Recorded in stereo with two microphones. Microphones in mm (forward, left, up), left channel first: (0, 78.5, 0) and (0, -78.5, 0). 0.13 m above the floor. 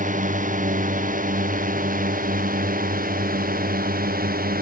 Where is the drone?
55° right (ahead or behind); by 4.6 s 70° right (ahead or behind).